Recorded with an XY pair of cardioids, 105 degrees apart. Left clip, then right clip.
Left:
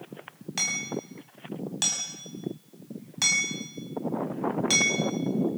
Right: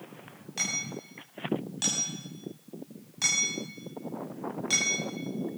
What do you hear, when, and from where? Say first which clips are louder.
0.6 s hammering: left 3 dB; 45° left, 7.5 m